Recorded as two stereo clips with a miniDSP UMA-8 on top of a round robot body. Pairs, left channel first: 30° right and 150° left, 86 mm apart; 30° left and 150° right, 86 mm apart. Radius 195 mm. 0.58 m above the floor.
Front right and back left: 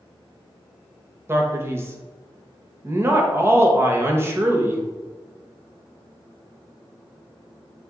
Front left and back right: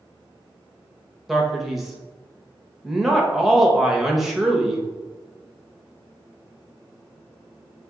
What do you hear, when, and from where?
1.3 s a man speaking: 125° left, 1.1 m